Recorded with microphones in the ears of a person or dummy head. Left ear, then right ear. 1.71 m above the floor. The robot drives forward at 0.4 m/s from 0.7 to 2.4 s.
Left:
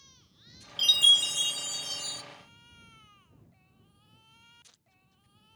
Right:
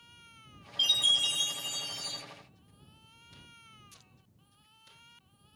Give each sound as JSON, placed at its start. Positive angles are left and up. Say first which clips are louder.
{"t": 0.8, "sound": "a chime", "louder": "left 5 dB", "side_deg": 20, "distance_m": 1.0}